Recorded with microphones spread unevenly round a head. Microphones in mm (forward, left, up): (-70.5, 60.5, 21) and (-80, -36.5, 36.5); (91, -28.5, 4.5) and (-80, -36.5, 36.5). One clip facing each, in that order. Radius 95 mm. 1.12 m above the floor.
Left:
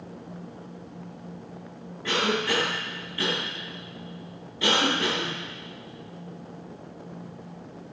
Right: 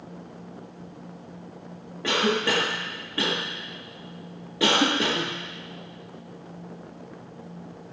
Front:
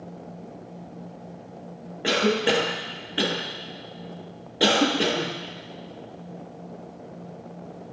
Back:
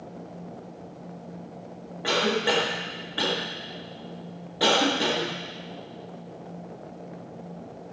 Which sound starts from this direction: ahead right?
A cough, at 2.0 s.